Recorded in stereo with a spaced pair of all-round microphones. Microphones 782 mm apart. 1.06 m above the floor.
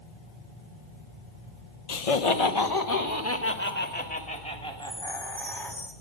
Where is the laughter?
55° left (ahead or behind), 0.8 m; by 5.8 s centre (ahead or behind), 3 m.